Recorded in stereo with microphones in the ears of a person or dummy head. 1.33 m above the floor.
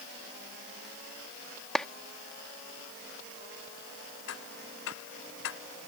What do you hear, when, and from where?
1.8 s a clap: centre (ahead or behind)
4.3 s ticking: 70° left (ahead or behind)